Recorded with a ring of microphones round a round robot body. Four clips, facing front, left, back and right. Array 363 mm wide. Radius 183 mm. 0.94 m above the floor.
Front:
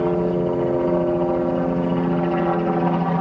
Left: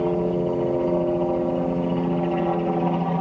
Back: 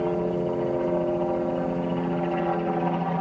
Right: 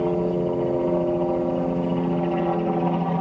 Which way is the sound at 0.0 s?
Straight ahead.